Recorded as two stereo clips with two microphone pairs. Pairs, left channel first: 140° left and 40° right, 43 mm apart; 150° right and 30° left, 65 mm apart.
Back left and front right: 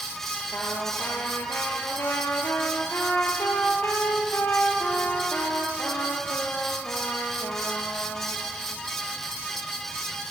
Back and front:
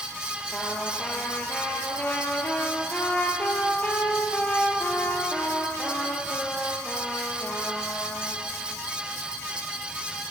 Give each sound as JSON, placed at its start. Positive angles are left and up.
{"t": 0.5, "sound": "a trumpet", "azimuth_deg": 145, "distance_m": 4.0}